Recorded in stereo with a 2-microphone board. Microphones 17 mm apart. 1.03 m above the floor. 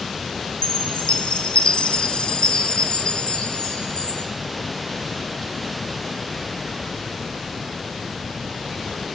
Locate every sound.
0.6 s a chime: 85° left, 4 m